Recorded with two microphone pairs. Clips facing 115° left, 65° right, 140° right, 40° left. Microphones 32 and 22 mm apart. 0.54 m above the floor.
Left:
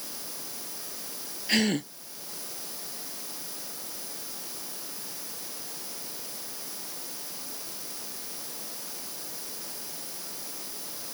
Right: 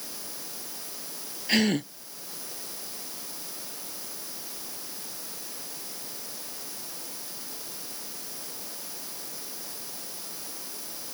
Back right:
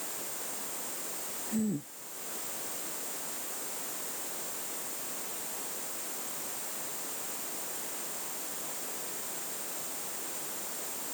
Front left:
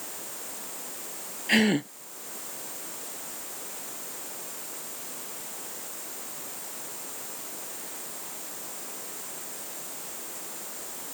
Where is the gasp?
20° left.